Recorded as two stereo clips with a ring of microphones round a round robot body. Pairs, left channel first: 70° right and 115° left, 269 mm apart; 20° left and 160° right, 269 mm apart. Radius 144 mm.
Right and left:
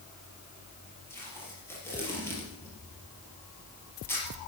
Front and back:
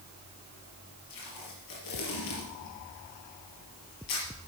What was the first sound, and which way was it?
Tape being pulled, 15° left.